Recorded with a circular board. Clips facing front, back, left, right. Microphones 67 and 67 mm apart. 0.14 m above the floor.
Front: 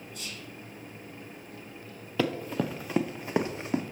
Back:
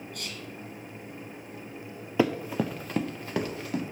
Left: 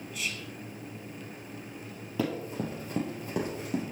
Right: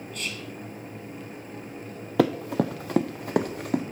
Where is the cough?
I don't hear a cough.